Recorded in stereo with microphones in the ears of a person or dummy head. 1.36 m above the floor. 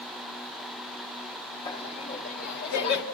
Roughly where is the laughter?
Left.